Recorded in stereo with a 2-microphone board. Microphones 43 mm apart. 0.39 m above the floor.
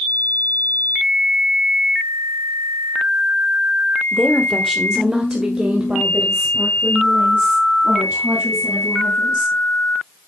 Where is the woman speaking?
15° left (ahead or behind), 1.3 m; by 9.5 s 50° right (ahead or behind), 4.5 m.